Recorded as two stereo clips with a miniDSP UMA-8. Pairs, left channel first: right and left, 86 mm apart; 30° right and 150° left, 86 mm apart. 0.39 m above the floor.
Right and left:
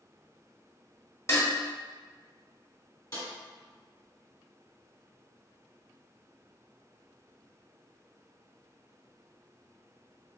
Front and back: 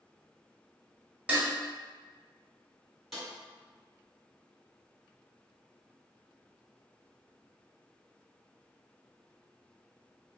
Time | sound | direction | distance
1.3 | dishes clattering | 135° right | 1.1 m
3.1 | a snare drum | 125° right | 1.4 m